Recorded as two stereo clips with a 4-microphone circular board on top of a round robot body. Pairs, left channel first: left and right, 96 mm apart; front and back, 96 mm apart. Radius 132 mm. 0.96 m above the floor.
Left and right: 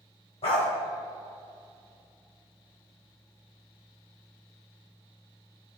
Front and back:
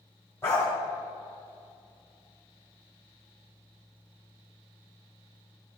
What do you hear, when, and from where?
0.4 s a dog barking: 70° left, 1.1 m